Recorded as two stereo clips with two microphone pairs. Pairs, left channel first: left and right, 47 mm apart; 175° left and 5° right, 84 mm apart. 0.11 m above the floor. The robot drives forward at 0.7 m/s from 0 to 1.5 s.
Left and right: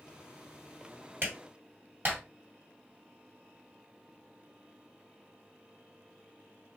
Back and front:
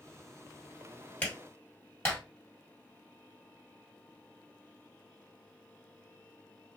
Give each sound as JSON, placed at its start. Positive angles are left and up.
{"t": 1.2, "sound": "a clap", "azimuth_deg": -120, "distance_m": 1.7}